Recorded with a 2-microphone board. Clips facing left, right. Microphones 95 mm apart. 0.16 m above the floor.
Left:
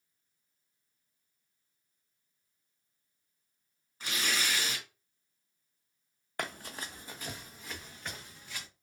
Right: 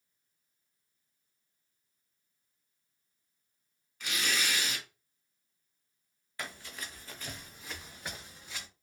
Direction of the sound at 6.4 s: 55° left (ahead or behind).